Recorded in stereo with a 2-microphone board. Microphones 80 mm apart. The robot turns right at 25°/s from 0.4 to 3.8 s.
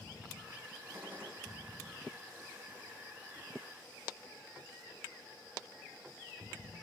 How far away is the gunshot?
About 6 m.